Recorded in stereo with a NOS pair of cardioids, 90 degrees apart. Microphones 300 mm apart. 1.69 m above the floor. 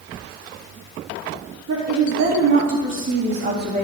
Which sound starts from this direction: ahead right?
A woman speaking, at 1.7 s.